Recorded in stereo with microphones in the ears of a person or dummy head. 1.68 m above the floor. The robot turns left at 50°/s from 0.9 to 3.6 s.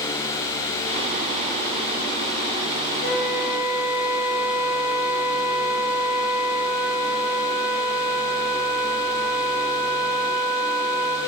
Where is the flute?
75° left, 3 m; by 11.2 s 45° left, 3 m.